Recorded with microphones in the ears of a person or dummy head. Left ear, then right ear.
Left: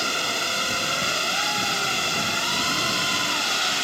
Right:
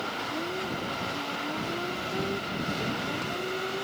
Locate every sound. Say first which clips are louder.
0.0 s a drone: left 8 dB; 75° left (ahead or behind)